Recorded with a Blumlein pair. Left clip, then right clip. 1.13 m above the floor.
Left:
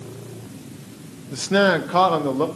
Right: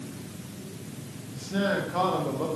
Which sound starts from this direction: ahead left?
A man speaking, at 1.3 s.